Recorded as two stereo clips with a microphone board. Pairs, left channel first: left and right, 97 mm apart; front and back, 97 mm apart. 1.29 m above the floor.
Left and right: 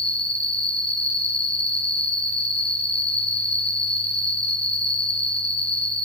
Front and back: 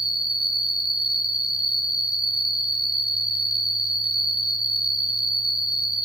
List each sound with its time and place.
0.0 s an insect: 95° left, 1.4 m